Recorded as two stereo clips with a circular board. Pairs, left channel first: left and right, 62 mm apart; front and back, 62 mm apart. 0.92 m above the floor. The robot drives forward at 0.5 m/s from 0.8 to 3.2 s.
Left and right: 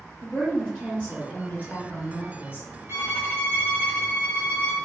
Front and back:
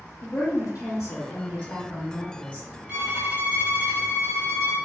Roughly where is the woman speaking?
Ahead left.